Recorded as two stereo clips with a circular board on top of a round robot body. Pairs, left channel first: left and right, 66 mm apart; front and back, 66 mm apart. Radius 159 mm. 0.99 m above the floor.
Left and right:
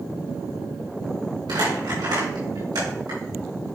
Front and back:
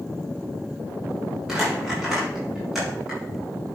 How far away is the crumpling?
About 4.5 m.